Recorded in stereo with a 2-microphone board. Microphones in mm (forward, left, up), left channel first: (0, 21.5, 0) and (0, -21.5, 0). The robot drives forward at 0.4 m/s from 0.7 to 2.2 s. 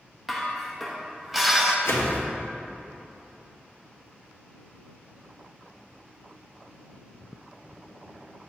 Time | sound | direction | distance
0.3 | dishes clattering | 5° right (ahead or behind) | 1.1 m
1.9 | a whoosh | 75° left (ahead or behind) | 1.1 m